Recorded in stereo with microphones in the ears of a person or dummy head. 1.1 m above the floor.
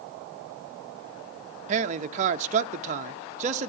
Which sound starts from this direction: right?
A man speaking, at 1.7 s.